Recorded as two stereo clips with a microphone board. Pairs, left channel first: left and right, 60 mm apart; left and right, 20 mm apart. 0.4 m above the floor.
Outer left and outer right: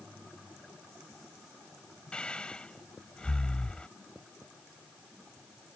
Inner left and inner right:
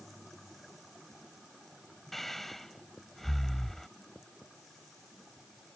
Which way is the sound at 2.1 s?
20° left (ahead or behind).